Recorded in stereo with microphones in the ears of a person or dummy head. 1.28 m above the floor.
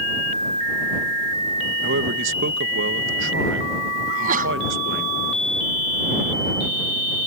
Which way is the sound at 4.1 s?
45° right (ahead or behind).